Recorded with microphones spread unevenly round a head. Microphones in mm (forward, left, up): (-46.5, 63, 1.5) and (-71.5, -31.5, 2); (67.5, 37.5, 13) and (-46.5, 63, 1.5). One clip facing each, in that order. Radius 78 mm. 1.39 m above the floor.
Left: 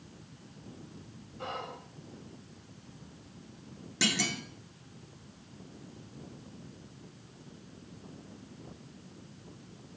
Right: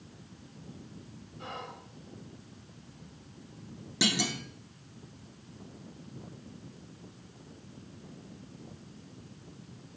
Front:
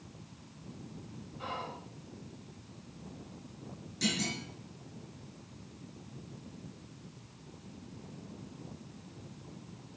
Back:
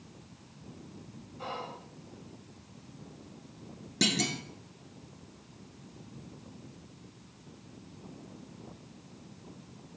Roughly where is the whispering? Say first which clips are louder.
Left 3 dB, back 1 dB; behind left.